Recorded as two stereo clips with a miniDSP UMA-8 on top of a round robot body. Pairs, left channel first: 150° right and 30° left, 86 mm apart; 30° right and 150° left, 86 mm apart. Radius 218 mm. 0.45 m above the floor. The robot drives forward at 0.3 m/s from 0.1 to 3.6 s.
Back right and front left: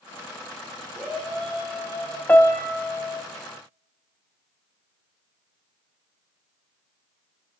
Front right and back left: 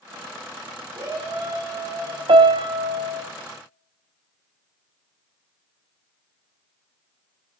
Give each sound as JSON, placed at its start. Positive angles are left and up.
{"t": 0.9, "sound": "a shout", "azimuth_deg": 120, "distance_m": 3.5}
{"t": 2.3, "sound": "a piano", "azimuth_deg": 140, "distance_m": 1.0}